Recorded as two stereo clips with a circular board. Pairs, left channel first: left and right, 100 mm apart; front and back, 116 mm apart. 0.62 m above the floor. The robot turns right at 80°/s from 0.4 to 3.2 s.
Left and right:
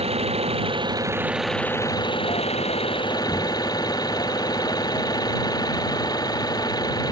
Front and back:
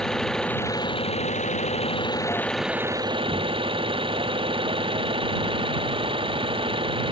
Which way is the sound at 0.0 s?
85° right.